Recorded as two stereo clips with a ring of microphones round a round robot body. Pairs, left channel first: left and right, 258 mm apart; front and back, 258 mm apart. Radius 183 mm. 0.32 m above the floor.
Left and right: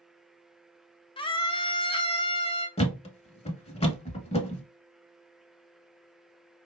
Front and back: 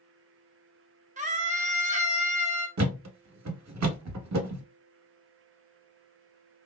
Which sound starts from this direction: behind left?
A scream, at 1.2 s.